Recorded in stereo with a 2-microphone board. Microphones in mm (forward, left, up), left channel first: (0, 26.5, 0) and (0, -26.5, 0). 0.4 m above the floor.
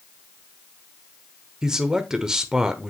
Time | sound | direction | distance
1.6 | a man speaking | 10° right (ahead or behind) | 1.0 m